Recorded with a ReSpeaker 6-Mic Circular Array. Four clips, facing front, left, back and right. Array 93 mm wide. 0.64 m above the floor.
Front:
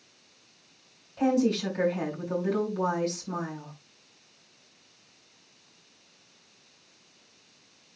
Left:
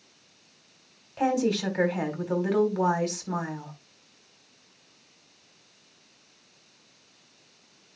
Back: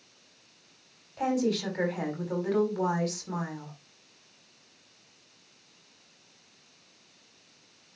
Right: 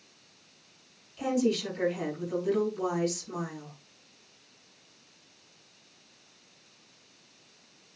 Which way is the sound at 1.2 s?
100° left.